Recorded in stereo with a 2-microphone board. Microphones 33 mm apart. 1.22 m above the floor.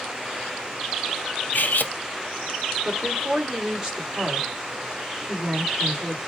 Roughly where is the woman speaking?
Right.